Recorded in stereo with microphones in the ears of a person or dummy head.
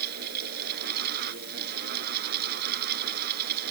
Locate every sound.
0.0 s a fan: 55° right (ahead or behind)